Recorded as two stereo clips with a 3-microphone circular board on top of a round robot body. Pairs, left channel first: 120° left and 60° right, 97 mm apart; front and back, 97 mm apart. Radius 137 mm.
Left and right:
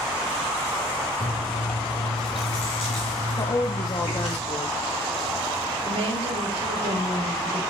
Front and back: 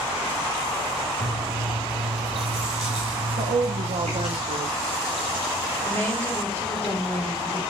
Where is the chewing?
145° left, 1.0 m.